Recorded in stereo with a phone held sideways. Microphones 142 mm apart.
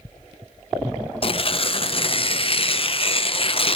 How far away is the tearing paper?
About 0.8 m.